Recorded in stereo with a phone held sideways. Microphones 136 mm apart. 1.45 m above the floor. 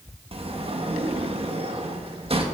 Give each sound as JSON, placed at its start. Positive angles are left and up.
{"t": 0.3, "sound": "a sliding door", "side_deg": -45, "distance_m": 1.6}